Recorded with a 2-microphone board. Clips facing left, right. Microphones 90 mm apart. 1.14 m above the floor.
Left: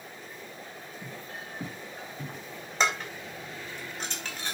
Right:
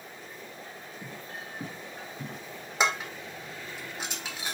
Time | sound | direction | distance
1.0 | footsteps | 30° right (ahead or behind) | 1.9 m
2.8 | dishes clattering | 10° right (ahead or behind) | 2 m